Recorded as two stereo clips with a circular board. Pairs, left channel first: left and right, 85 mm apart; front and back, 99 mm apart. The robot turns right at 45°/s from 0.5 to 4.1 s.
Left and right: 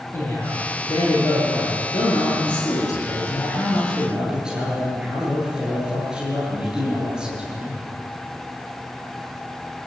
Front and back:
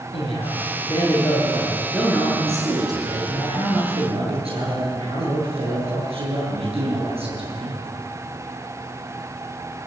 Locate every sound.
0.1 s a man speaking: 25° left, 9 m; by 7.8 s 170° right, 9 m